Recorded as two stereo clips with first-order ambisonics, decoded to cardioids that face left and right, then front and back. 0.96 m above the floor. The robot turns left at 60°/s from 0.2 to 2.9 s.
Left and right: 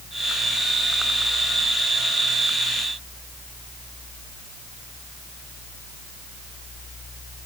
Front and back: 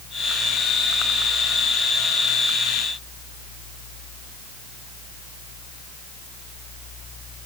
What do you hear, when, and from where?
Only background noise.